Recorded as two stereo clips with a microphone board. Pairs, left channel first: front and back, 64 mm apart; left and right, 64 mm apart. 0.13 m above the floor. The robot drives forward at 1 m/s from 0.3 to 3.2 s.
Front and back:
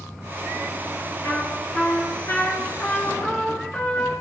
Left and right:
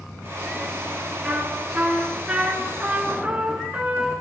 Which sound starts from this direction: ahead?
A trumpet, at 1.2 s.